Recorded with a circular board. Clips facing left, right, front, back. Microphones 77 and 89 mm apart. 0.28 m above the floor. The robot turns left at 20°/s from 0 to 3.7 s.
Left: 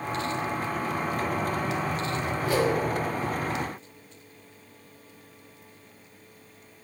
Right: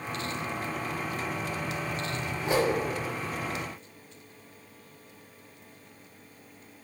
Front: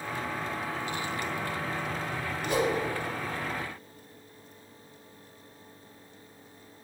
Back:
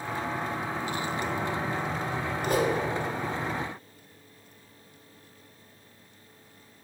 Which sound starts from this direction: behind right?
A whoosh, at 2.4 s.